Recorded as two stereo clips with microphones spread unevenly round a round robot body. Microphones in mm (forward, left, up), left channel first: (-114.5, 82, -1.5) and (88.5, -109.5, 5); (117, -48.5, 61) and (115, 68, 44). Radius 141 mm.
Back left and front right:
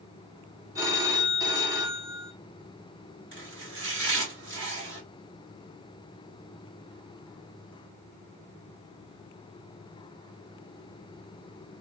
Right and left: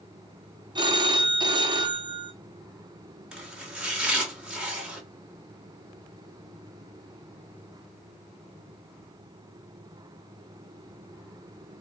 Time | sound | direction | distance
0.8 | a phone ringing | 35° left | 0.9 m
3.3 | chopping | 10° left | 1.9 m